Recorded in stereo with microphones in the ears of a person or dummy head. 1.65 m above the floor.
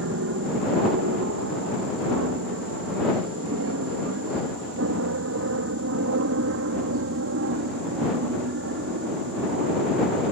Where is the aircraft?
60° right (ahead or behind); by 10.3 s 55° right (ahead or behind).